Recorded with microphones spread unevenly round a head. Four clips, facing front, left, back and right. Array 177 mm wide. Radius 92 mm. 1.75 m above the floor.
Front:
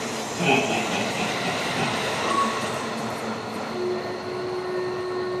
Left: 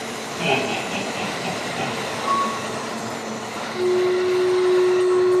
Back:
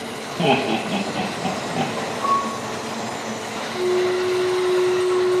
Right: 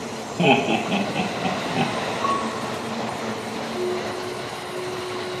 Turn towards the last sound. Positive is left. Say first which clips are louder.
# left 9 dB, back 9 dB
turn(degrees=-30)